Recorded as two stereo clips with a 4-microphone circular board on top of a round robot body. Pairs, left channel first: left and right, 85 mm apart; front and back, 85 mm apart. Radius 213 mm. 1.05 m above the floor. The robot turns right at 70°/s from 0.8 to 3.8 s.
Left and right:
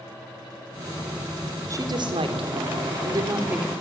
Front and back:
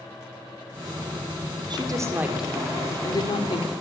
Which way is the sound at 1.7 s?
145° right.